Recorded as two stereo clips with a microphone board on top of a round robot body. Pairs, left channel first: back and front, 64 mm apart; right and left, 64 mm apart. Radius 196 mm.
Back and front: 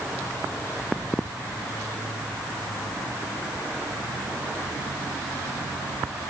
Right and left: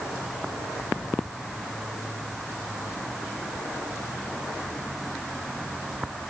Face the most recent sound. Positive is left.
No sound to turn to.